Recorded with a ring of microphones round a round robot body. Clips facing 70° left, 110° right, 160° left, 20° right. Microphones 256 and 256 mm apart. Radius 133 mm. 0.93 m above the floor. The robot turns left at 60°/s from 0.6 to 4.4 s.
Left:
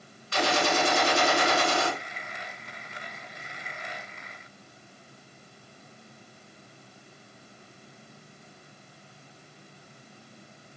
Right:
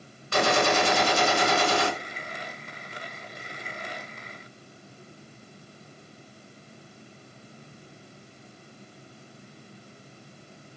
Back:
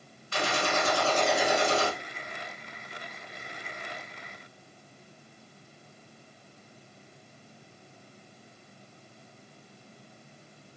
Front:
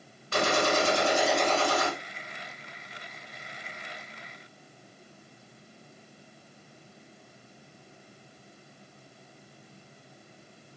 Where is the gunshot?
70° right, 2.5 m; by 1.9 s 150° right, 2.5 m.